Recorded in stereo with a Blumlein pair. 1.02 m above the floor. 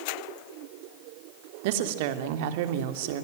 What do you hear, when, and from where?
1.6 s a woman speaking: 50° right, 2.5 m